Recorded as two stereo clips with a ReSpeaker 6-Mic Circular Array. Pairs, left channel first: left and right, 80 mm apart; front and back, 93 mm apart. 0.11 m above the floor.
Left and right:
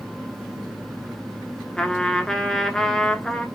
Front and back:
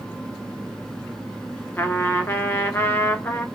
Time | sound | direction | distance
1.8 | a trumpet | 20° left | 0.7 m